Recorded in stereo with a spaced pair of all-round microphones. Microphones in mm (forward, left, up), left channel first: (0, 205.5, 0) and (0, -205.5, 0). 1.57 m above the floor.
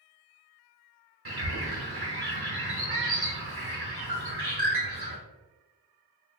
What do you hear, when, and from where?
1.2 s a bird: 65° right (ahead or behind), 1.0 m